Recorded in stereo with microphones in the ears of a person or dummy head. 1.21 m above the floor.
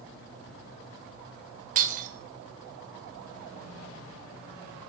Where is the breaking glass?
45° right (ahead or behind), 3 m.